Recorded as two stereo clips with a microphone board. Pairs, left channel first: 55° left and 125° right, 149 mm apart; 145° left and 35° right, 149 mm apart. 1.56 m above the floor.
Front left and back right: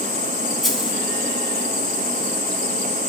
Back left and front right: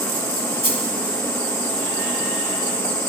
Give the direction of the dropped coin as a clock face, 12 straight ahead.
7 o'clock.